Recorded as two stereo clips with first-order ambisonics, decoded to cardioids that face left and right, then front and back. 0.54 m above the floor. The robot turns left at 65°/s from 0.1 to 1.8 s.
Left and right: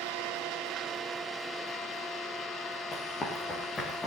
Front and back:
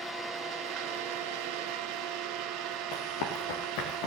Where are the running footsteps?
15° left, 3.5 m.